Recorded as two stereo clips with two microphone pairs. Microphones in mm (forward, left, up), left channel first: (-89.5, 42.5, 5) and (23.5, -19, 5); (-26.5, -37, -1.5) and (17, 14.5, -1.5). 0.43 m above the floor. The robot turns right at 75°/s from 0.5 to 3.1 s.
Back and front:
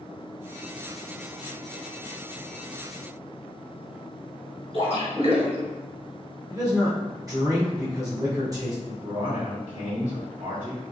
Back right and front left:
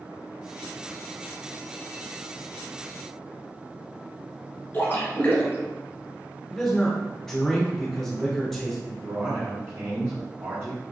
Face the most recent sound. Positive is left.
turn(degrees=15)